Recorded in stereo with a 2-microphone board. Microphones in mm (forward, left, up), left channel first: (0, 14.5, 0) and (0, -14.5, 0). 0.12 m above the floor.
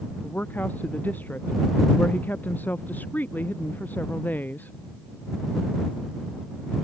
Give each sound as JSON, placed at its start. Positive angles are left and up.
{"t": 0.2, "sound": "a woman speaking", "side_deg": 80}